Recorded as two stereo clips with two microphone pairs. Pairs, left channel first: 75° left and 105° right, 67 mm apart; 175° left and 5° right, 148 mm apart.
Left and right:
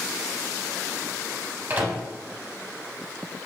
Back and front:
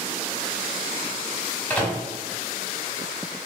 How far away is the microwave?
About 0.9 m.